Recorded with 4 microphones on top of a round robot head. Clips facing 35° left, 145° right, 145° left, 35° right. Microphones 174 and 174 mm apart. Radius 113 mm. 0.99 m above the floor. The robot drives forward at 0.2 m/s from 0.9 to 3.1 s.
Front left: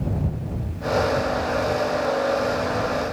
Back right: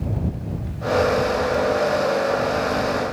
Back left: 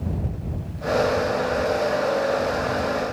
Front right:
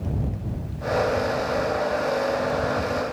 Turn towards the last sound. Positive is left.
No sound to turn to.